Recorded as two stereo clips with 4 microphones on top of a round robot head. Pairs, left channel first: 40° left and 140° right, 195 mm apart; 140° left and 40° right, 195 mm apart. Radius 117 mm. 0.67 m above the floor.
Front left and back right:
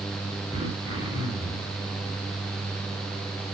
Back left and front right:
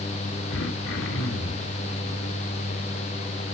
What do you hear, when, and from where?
0.5 s throat clearing: 150° left, 3 m